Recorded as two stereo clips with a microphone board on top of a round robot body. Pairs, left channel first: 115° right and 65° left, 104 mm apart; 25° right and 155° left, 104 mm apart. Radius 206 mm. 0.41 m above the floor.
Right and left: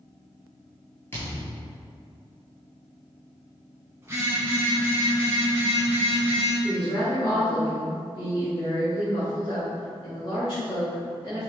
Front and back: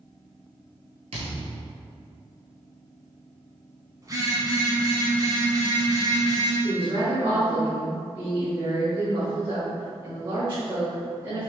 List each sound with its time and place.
1.1 s a thud: straight behind, 0.6 m
4.0 s a phone buzzing: 125° left, 1.5 m
6.6 s a woman speaking: 150° right, 1.8 m